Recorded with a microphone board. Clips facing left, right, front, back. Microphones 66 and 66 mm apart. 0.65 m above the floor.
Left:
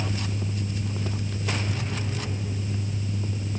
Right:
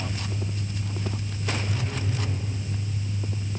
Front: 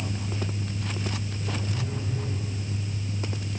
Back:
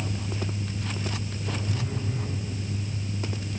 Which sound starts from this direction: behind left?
A phone buzzing, at 1.7 s.